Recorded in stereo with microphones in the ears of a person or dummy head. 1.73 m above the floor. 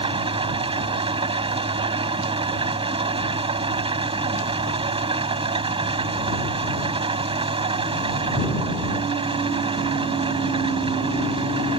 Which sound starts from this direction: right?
An engine running, at 0.0 s.